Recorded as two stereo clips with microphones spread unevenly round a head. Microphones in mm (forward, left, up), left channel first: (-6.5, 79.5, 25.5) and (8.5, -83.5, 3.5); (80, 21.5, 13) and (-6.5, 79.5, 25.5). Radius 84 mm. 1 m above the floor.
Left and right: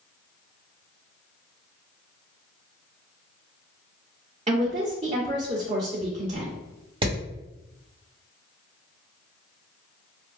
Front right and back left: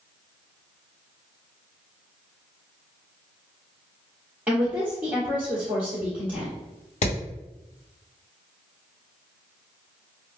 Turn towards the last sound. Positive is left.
turn(degrees=-20)